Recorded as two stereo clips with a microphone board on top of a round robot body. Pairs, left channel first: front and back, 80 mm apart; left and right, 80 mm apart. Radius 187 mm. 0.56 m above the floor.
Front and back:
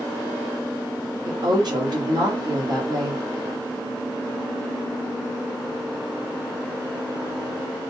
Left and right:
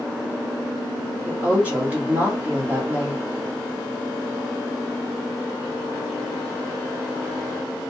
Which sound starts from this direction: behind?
A woman speaking, at 1.2 s.